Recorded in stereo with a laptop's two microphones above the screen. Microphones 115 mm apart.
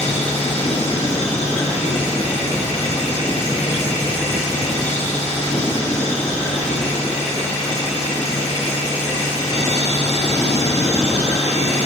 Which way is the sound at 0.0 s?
70° left (ahead or behind).